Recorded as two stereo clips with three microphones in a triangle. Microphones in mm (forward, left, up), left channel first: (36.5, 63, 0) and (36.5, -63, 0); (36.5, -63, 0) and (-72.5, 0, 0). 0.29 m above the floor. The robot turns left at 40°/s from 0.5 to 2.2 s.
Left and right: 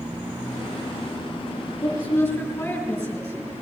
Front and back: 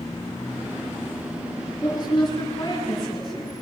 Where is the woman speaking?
30° left, 5.5 m; by 3.5 s 15° left, 5.5 m.